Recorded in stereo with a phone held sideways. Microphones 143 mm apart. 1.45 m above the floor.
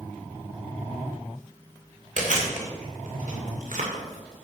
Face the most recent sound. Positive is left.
turn(degrees=-65)  # may be behind; listen again after turning